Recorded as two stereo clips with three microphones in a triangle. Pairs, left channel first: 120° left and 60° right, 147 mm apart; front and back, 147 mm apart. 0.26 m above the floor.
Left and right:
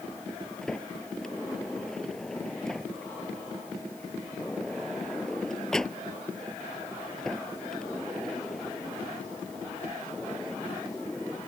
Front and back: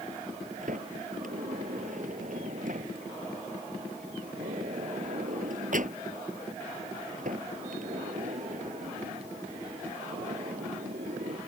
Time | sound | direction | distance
0.6 | a sliding door | 155° right | ?